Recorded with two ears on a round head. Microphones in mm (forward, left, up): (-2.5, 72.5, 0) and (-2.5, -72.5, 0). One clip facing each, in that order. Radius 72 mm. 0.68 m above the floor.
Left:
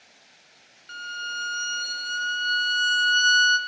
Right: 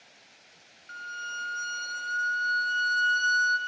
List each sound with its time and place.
0.9 s a violin: 35° left (ahead or behind), 1.5 m